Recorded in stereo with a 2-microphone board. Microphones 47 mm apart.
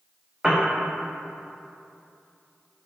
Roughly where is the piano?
Right.